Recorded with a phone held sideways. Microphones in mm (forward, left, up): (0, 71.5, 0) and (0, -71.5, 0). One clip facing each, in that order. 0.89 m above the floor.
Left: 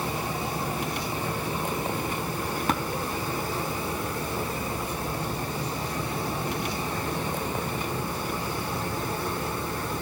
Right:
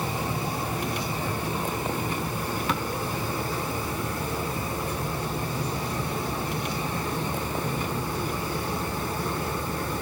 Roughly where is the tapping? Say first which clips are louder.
Left 3 dB; left.